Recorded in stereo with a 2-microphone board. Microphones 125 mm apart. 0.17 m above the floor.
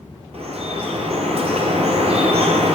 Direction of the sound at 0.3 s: 55° right (ahead or behind).